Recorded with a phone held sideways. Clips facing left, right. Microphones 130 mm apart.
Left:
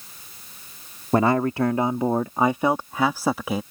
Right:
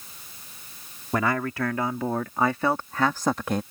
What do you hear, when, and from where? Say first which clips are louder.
1.1 s a man speaking: left 6 dB; 30° left (ahead or behind); by 3.6 s 5° left (ahead or behind)